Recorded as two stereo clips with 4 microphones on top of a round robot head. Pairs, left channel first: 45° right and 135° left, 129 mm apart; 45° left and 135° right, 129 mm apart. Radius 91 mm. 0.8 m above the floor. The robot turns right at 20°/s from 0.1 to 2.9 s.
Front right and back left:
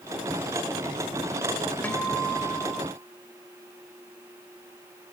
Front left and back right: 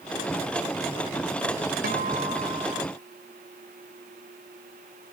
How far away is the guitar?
About 3.5 m.